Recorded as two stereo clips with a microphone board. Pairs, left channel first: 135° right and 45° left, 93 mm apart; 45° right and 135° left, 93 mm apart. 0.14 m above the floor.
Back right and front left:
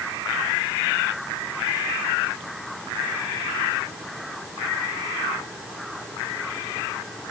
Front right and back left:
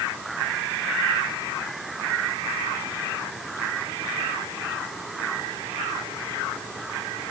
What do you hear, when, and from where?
Only background noise.